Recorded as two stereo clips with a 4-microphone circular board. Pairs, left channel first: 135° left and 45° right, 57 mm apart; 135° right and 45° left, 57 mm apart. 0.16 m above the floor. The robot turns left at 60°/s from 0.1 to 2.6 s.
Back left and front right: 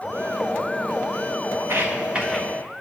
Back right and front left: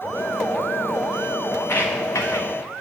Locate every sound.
1.6 s footsteps: 85° right, 1.2 m; by 2.5 s 135° right, 1.2 m